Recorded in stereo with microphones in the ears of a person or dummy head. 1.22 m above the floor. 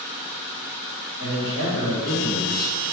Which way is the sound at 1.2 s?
65° left (ahead or behind).